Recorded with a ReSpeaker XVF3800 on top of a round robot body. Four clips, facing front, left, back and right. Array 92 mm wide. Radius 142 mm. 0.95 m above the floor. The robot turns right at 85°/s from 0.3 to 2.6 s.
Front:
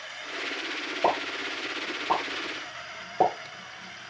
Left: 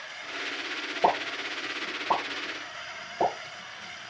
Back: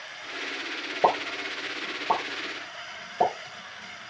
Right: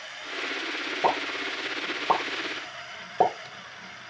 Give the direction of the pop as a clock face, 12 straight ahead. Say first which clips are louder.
Left 1 dB, back 3 dB; 6 o'clock.